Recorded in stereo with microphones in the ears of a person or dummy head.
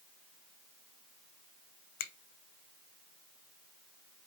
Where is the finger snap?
55° left (ahead or behind), 0.8 m.